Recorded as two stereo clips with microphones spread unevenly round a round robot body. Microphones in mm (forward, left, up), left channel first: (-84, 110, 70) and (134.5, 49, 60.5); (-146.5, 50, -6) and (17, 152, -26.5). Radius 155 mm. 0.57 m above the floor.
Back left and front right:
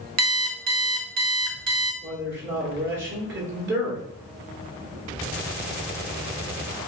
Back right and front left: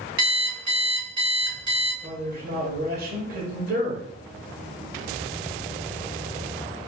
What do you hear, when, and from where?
0.2 s an alarm clock: 20° right, 0.8 m
2.0 s a man speaking: 5° left, 1.6 m